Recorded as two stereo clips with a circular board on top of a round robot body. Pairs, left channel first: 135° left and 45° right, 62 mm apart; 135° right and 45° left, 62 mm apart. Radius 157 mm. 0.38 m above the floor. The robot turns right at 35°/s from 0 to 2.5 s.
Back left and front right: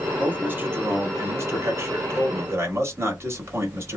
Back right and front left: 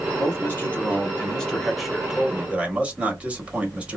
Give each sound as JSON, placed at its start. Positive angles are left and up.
{"t": 0.2, "sound": "a man speaking", "azimuth_deg": -100, "distance_m": 1.5}